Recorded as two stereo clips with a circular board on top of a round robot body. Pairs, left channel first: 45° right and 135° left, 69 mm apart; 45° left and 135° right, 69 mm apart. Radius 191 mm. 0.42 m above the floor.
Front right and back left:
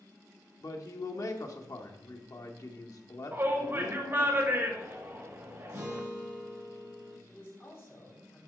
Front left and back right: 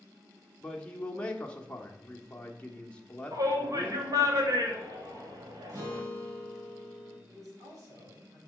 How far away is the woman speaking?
About 4.5 m.